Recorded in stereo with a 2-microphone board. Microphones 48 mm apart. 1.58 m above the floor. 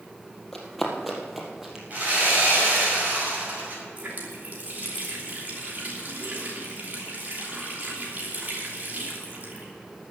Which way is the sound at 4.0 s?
45° right (ahead or behind).